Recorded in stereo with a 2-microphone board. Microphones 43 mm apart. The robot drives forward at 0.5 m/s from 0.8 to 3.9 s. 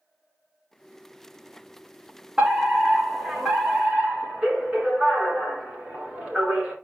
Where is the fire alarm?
25° right (ahead or behind), 4 m.